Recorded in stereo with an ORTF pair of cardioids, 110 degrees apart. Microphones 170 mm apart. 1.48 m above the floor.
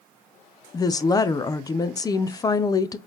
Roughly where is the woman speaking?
Ahead.